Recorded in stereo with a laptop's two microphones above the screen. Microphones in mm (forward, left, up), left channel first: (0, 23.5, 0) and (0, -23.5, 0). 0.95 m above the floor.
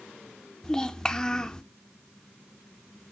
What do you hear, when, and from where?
0.6 s a child speaking: 15° left (ahead or behind), 0.5 m